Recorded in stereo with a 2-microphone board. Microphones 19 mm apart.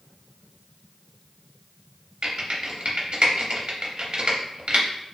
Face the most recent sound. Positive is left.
turn(degrees=-70)  # may be behind; listen again after turning